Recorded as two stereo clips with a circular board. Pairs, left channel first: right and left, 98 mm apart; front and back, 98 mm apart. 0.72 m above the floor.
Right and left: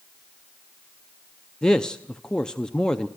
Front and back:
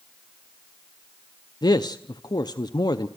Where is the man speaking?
10° right, 0.6 m.